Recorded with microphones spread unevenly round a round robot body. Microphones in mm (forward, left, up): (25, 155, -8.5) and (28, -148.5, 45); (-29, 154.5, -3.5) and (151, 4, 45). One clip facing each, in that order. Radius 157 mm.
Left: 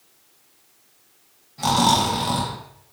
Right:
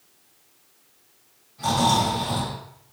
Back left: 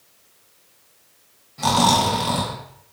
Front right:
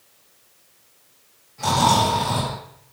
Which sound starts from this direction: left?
Snoring, at 1.6 s.